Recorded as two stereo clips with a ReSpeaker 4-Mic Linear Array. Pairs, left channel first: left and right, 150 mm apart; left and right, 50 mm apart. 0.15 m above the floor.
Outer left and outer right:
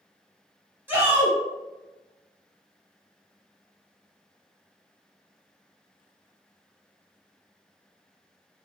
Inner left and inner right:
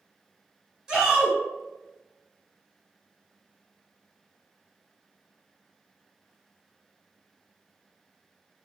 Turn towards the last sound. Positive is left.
turn(degrees=-15)  # may be behind; listen again after turning